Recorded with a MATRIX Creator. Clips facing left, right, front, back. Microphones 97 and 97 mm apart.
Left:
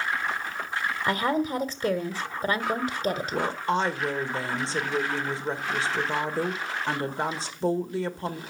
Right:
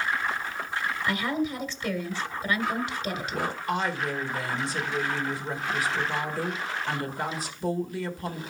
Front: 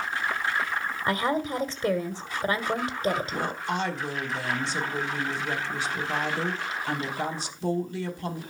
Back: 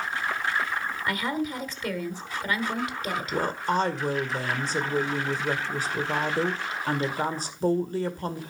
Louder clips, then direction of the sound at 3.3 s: Left 1 dB, back 4 dB; 145° left.